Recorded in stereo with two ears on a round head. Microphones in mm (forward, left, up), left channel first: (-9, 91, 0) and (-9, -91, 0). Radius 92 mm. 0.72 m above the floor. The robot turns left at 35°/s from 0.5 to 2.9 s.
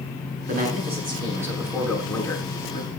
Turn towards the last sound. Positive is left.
turn(degrees=140)